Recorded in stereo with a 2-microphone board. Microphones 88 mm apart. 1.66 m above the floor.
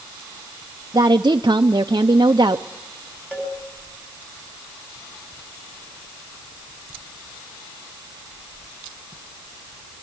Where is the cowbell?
15° left (ahead or behind), 8 m.